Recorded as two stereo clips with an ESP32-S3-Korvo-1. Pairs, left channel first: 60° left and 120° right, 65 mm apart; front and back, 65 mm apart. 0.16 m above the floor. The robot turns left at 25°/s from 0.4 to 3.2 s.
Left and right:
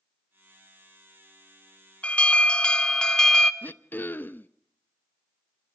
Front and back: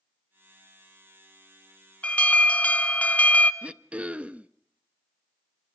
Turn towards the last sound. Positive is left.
turn(degrees=115)